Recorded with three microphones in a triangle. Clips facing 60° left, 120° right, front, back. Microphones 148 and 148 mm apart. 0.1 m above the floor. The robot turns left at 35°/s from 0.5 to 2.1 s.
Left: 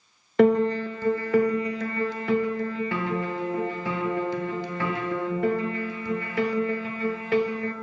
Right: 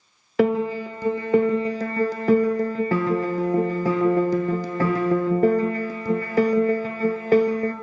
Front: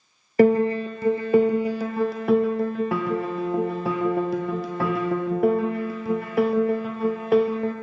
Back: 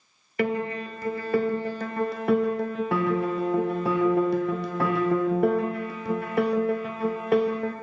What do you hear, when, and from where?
0.4 s a piano: 35° right, 0.7 m; by 7.7 s 90° right, 0.7 m